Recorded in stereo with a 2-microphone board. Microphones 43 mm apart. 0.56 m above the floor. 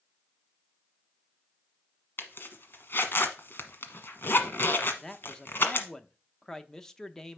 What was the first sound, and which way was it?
A zipper, 55° left (ahead or behind).